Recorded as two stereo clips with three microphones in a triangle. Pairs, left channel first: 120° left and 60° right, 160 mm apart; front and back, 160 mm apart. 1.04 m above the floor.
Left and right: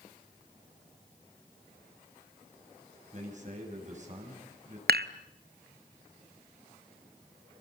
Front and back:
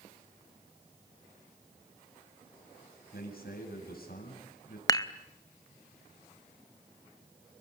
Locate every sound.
3.1 s a man speaking: 20° right, 7.5 m
4.9 s dishes clattering: 65° right, 0.7 m